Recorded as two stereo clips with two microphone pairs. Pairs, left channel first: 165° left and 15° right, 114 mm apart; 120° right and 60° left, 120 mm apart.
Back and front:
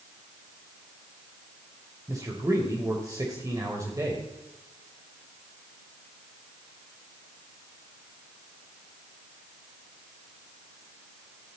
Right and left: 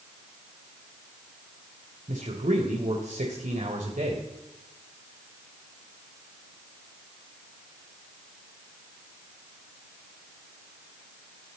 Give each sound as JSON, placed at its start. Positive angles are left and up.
{"t": 2.1, "sound": "a man speaking", "azimuth_deg": 45, "distance_m": 2.5}